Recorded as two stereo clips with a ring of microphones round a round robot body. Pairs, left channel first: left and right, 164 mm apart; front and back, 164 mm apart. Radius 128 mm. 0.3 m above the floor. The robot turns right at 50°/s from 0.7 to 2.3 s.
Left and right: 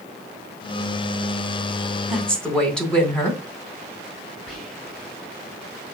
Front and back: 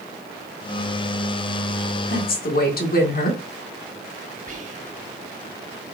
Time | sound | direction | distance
2.1 | a woman speaking | 5° right | 3 m
4.5 | whispering | 175° left | 2 m